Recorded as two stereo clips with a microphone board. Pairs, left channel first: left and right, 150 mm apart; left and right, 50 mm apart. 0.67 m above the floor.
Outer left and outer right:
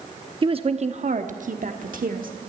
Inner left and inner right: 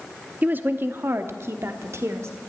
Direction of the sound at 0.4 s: 35° right (ahead or behind).